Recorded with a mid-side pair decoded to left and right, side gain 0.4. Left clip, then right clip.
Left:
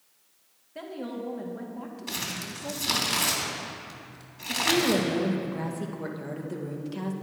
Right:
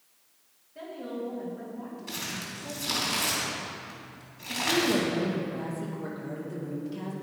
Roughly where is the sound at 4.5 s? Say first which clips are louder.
Left 2 dB; ahead left.